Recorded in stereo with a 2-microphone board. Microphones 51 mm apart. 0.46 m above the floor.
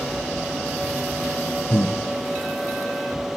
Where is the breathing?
45° left (ahead or behind), 0.8 m.